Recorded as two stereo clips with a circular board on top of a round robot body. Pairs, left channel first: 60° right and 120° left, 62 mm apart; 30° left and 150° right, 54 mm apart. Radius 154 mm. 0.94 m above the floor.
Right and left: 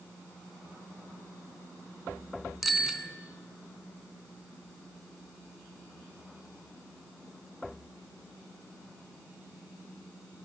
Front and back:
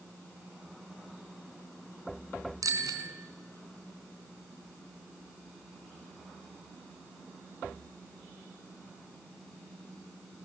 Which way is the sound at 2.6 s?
150° right.